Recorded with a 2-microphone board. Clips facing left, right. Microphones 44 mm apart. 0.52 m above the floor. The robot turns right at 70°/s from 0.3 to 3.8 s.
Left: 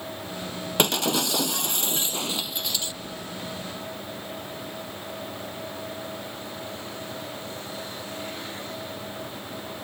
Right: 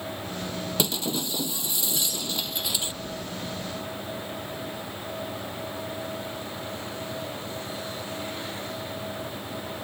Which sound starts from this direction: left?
An explosion, at 2.1 s.